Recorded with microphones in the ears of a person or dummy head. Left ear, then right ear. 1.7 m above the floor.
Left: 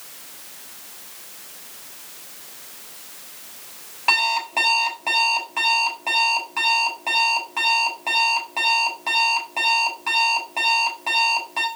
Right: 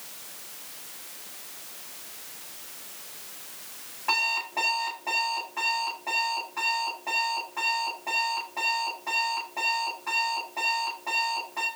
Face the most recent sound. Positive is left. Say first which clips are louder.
# left 7 dB
turn(degrees=70)  # may be behind; listen again after turning